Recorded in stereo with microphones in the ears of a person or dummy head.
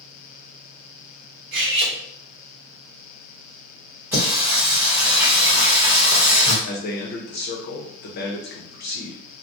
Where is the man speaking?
50° left (ahead or behind), 0.8 m.